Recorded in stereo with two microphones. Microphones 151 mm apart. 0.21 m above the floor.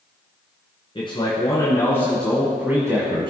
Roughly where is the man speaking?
Left.